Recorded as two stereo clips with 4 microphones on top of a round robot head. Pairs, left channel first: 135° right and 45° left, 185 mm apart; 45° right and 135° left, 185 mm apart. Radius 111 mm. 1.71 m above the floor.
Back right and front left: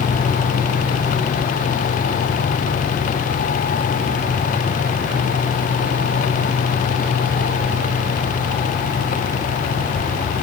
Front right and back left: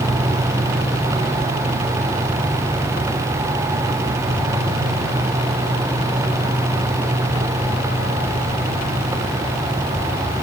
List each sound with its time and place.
Only background noise.